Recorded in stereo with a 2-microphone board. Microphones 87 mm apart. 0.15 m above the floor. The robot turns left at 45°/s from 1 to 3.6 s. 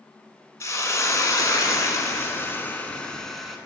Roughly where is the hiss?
Left.